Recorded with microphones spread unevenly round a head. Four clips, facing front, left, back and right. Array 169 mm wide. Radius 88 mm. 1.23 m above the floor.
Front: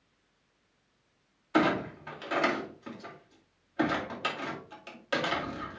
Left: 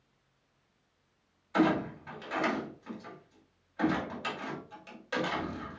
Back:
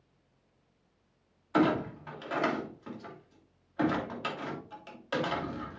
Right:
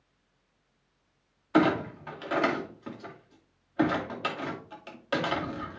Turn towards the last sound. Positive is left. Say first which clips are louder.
# right 3 dB, even
turn(degrees=-70)